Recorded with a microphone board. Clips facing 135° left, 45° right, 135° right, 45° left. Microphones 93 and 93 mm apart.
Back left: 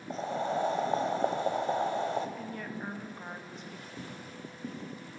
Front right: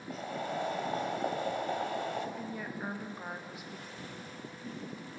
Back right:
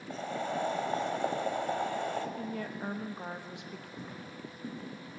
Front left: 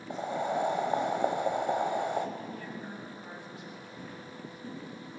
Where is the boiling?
105° left, 1.0 m.